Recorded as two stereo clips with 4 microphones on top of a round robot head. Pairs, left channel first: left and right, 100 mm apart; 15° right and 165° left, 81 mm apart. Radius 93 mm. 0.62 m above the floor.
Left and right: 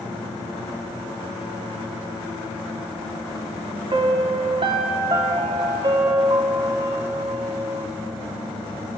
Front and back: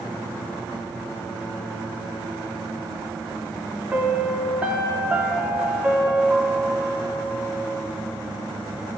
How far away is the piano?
About 1.0 m.